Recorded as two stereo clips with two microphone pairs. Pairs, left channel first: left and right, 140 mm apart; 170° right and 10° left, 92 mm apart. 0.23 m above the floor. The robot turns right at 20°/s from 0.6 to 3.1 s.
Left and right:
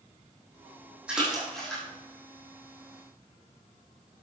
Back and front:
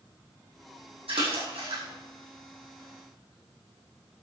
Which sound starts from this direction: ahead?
A splash, at 1.1 s.